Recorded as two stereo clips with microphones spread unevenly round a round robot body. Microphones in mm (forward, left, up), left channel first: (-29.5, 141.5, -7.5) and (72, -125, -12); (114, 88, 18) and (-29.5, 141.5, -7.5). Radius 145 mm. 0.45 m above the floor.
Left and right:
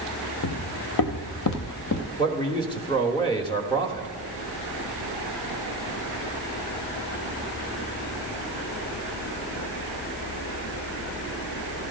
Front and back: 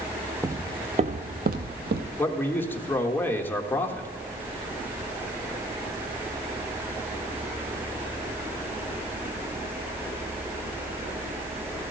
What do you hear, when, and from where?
0.4 s footsteps: 85° left, 0.9 m; by 2.1 s 155° left, 1.1 m
2.2 s a man speaking: 60° left, 1.1 m